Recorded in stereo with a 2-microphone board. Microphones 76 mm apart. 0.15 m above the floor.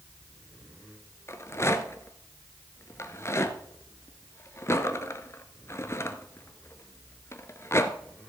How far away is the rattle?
About 0.8 m.